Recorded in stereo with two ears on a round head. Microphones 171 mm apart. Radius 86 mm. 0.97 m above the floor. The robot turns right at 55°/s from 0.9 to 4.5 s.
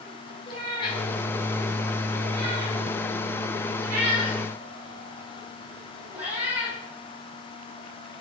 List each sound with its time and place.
0.5 s a cat meowing: 25° left (ahead or behind), 3.5 m; by 6.8 s 10° right (ahead or behind), 3.5 m